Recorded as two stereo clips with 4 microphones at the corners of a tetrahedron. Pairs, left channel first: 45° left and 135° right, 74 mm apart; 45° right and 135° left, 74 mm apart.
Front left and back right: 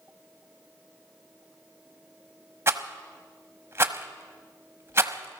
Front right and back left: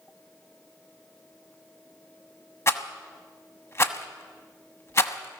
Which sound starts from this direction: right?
A rattle, at 2.7 s.